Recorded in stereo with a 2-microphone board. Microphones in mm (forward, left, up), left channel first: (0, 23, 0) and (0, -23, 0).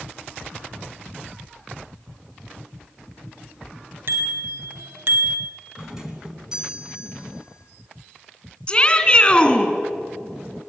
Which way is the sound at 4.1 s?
50° right (ahead or behind).